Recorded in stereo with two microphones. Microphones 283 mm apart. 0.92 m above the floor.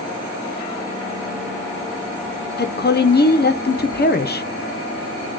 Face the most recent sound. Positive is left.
turn(degrees=35)  # may be behind; listen again after turning